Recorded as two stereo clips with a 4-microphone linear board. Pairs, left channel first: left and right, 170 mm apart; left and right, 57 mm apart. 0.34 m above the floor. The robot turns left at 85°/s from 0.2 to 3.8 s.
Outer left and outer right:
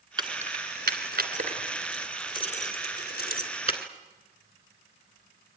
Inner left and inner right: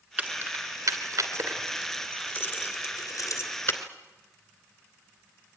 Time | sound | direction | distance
0.2 | keys jangling | 25° right (ahead or behind) | 2.5 m